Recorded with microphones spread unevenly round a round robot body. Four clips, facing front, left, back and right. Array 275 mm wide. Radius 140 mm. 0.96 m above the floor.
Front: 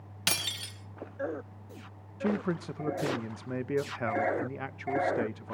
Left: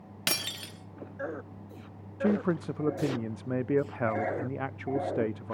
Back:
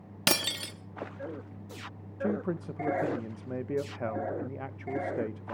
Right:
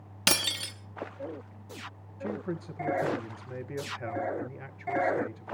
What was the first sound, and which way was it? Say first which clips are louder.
Breaking glass: right 5 dB, back 7 dB; 165° right.